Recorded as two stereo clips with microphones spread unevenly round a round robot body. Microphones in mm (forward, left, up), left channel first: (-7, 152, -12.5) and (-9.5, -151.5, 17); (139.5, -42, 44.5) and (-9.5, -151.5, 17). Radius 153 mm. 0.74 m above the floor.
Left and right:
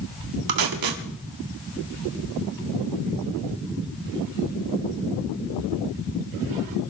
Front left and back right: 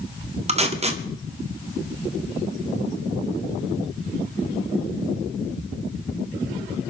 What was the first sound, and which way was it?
Tape being pulled, 95° right.